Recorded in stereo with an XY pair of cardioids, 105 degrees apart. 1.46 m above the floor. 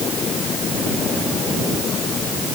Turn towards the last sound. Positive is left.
No sound to turn to.